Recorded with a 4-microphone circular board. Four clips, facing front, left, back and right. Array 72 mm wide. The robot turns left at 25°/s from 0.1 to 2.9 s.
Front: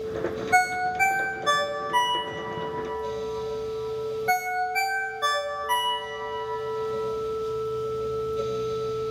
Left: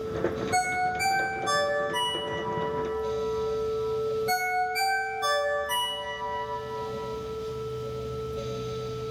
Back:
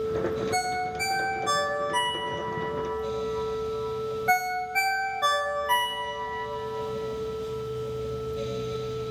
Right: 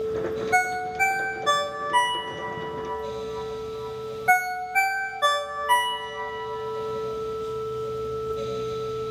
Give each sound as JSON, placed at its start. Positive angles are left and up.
{"t": 0.5, "sound": "a ringtone", "azimuth_deg": -35, "distance_m": 0.7}